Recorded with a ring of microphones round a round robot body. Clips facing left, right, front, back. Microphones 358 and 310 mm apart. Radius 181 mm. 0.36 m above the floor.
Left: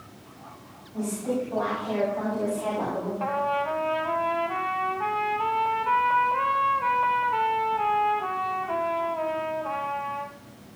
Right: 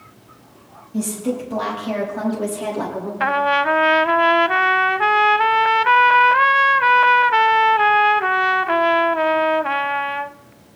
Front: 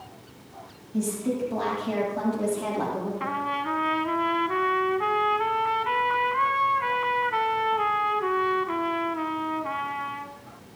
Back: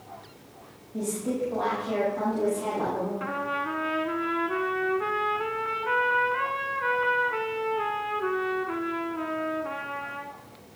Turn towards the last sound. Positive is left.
turn(degrees=-75)